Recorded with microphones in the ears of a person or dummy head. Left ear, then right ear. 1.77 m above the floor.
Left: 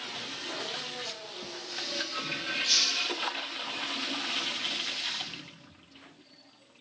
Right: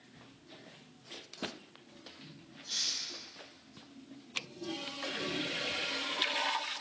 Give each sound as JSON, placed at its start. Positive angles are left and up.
{"t": 2.7, "sound": "a hiss", "side_deg": 45, "distance_m": 1.2}